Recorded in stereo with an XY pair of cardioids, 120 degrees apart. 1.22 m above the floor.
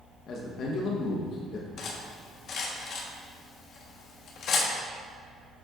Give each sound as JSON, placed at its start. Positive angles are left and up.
{"t": 0.3, "sound": "a man speaking", "azimuth_deg": 55, "distance_m": 1.0}
{"t": 1.8, "sound": "cutlery clinking", "azimuth_deg": 60, "distance_m": 1.2}